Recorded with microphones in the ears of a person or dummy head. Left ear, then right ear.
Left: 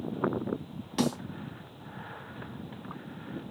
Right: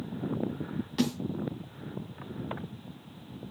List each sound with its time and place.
1.0 s a snare drum: 15° left (ahead or behind), 2 m